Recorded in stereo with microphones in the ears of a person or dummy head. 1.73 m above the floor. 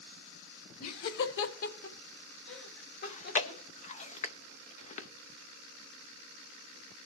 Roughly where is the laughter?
Left.